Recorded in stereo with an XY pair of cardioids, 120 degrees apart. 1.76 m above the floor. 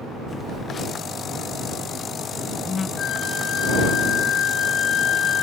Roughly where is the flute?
Ahead left.